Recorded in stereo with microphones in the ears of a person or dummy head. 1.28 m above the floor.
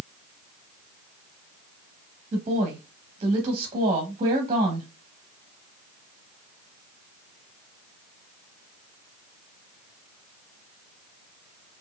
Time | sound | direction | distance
2.3 | a woman speaking | 35° right (ahead or behind) | 1.0 m